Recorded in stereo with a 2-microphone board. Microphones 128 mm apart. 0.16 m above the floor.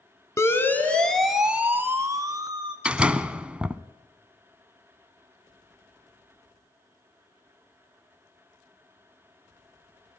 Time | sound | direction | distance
0.4 | a siren | 20° left (ahead or behind) | 2.5 m
2.9 | a door slam | 10° right (ahead or behind) | 0.8 m